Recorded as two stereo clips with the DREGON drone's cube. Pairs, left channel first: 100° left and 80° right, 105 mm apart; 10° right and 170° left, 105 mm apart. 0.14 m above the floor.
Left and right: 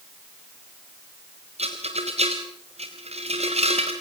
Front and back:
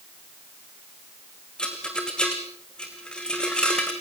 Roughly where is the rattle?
Right.